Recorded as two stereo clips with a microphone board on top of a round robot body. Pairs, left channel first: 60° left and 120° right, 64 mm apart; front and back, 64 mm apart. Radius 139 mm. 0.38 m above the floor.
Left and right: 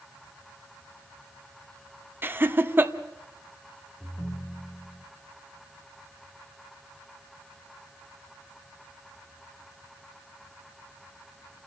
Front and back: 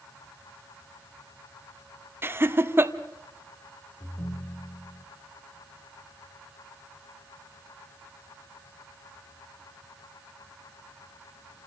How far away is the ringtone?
About 7 m.